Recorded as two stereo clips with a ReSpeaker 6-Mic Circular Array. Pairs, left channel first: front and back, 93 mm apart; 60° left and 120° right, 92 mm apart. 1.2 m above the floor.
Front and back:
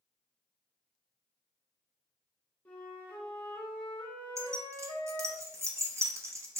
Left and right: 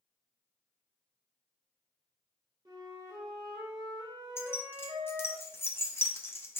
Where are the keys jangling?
125° left, 0.6 m.